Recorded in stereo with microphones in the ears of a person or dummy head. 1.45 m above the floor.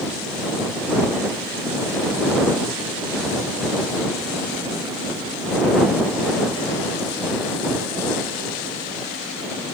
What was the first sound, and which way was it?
Only background noise.